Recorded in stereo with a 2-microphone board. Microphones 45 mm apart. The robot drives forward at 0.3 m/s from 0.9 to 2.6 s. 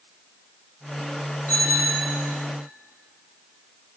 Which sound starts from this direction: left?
A bicycle bell, at 1.5 s.